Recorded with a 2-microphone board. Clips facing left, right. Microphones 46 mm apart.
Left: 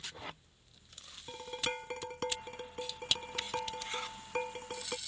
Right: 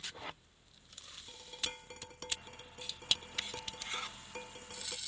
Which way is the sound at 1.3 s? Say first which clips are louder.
Left 7 dB; 40° left (ahead or behind).